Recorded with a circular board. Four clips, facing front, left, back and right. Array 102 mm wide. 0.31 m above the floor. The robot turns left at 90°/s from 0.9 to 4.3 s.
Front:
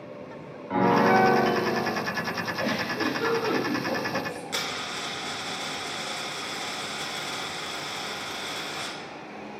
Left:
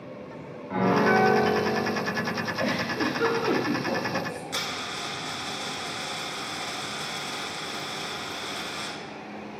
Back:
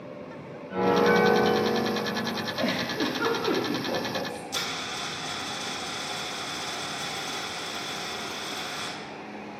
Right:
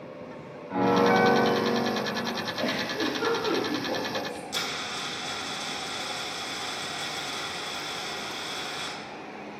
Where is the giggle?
175° right, 1.4 m; by 4.4 s 30° left, 1.4 m.